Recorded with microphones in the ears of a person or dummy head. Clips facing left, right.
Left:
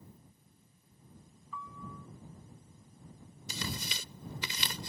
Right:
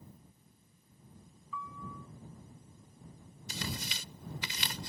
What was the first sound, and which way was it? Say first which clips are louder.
A piano: right 1 dB; 35° left (ahead or behind).